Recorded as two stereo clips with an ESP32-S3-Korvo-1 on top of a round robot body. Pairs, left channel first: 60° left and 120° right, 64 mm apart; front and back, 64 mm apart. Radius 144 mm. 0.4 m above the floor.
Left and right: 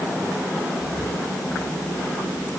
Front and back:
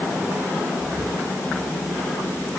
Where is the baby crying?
No baby crying in this recording.